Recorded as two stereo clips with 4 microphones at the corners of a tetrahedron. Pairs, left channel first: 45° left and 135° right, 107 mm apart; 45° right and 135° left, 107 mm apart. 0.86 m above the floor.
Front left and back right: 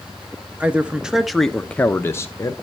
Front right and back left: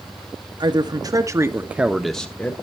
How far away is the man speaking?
About 1.2 m.